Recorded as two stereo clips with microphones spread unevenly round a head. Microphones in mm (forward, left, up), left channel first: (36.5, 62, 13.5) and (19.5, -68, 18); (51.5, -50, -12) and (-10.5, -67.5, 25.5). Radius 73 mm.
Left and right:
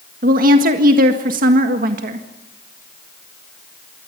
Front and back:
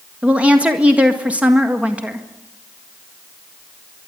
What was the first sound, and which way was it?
A woman speaking, 85° right.